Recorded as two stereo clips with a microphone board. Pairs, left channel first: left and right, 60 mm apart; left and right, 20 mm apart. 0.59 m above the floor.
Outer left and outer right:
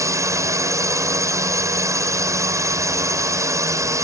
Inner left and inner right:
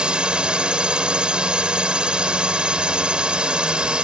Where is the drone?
60° right (ahead or behind).